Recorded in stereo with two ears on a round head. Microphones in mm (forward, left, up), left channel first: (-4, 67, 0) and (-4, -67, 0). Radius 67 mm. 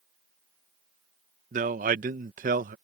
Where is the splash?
No splash in this recording.